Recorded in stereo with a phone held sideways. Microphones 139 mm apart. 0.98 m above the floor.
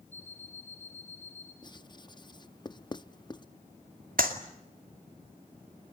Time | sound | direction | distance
0.1 | an alarm clock | 50° left (ahead or behind) | 8 m
1.6 | writing | 30° left (ahead or behind) | 0.6 m
4.2 | a clap | 70° right (ahead or behind) | 2.5 m